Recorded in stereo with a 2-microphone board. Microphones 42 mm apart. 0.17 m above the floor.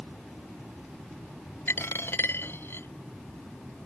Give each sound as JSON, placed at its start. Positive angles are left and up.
{"t": 1.7, "sound": "a dropped coin", "side_deg": 65}